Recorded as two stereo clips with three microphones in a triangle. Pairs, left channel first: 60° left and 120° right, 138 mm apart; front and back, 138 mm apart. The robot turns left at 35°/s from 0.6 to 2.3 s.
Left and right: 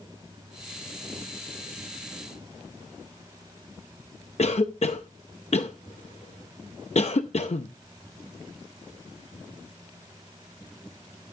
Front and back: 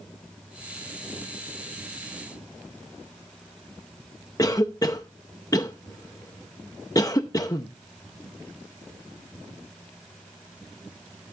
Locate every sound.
4.4 s a cough: 60° left, 0.6 m